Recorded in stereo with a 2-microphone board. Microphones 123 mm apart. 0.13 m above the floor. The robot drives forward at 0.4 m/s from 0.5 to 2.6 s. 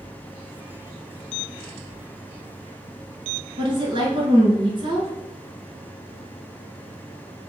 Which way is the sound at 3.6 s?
45° right (ahead or behind).